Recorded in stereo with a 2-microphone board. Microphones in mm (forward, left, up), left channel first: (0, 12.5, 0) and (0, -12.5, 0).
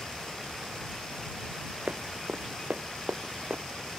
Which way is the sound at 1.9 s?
80° right.